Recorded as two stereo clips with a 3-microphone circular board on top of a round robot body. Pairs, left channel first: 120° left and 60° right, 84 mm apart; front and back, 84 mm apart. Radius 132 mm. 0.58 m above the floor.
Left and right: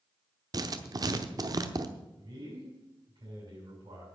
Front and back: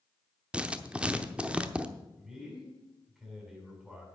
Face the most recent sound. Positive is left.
turn(degrees=-95)